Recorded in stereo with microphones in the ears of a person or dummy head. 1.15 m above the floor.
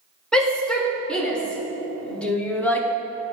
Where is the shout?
5° left (ahead or behind), 4.5 m; by 2.9 s 10° left (ahead or behind), 2.5 m.